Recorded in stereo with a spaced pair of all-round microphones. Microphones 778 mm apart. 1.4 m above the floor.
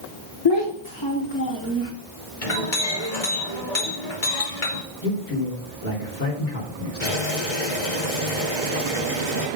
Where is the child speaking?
35° left (ahead or behind), 0.7 m; by 1.9 s 20° left (ahead or behind), 1.5 m.